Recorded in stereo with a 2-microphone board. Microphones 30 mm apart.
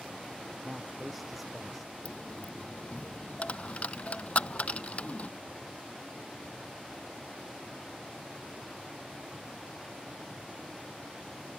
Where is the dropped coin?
45° left (ahead or behind).